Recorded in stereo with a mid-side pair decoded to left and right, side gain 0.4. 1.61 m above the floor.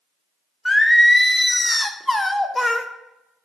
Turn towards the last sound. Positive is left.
turn(degrees=15)